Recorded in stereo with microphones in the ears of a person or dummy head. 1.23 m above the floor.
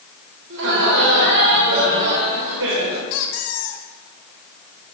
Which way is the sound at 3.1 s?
65° left (ahead or behind).